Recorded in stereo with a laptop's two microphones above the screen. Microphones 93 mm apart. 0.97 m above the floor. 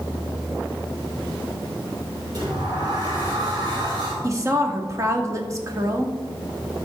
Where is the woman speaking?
35° right (ahead or behind), 1.9 m.